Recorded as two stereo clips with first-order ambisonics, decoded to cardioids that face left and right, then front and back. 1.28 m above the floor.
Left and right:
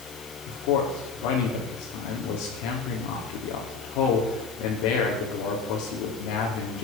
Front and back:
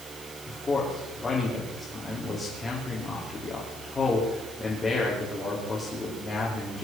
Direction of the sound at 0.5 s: 75° left.